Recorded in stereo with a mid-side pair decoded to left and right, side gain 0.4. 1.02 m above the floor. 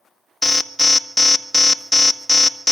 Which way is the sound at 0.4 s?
10° left.